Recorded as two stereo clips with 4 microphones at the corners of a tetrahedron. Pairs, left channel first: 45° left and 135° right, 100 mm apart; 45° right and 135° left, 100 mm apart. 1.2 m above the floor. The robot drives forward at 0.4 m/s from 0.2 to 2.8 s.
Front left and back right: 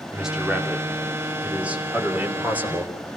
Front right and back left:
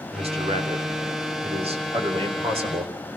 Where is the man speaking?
140° left, 2.5 m; by 2.9 s 150° left, 3.5 m.